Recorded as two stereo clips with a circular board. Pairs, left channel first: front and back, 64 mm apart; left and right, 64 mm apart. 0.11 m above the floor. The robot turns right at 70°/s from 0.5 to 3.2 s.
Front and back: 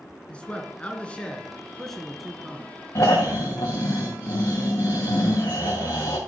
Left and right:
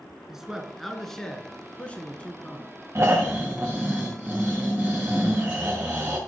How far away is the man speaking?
About 1.1 m.